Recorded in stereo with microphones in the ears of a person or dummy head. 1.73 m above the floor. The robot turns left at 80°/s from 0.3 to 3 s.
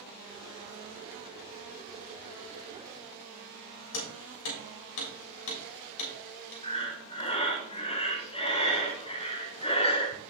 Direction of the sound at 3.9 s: 70° left (ahead or behind).